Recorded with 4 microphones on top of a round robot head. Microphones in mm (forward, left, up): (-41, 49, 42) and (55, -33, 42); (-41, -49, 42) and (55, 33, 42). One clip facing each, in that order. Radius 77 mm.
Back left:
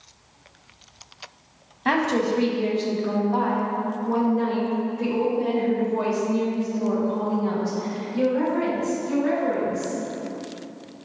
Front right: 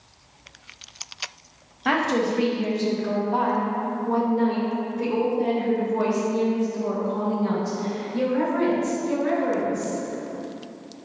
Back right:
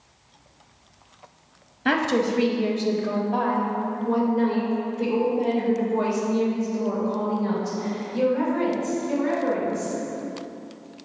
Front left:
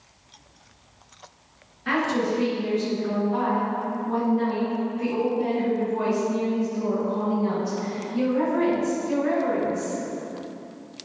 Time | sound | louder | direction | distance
1.9 | a woman speaking | back left 1 dB, back right 2 dB | 130° right | 1.0 m